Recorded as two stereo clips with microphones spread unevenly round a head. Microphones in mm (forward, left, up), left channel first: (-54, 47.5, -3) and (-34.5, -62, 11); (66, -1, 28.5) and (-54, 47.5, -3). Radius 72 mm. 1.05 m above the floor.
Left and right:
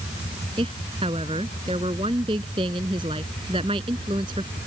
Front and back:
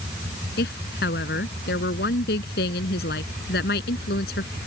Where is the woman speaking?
20° right.